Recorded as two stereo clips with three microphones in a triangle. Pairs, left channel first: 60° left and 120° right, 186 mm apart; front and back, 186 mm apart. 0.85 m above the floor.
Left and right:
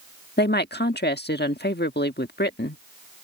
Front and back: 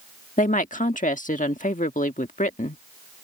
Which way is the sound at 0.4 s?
45° left.